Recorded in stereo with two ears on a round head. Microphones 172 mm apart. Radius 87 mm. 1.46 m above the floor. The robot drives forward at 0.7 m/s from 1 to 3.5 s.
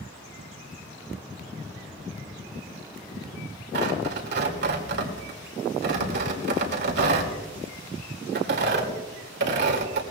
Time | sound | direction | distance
3.7 | tearing paper | 60° right (ahead or behind) | 2 m